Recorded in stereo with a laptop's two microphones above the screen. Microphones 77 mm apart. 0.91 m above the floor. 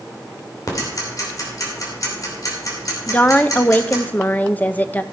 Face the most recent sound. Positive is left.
turn(degrees=20)  # may be behind; listen again after turning